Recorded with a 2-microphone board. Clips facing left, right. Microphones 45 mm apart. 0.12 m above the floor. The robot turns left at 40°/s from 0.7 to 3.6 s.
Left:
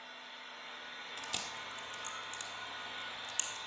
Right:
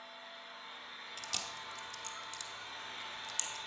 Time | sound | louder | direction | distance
0.0 | an engine running | left 1 dB | 115° left | 2.5 m
1.2 | chewing | left 1 dB | 20° left (ahead or behind) | 1.3 m